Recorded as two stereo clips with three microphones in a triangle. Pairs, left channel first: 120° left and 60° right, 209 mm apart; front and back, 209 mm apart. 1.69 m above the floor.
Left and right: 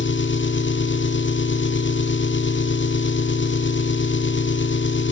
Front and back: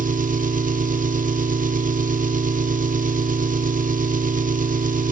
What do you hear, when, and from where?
0.0 s an engine running: 135° left, 1.1 m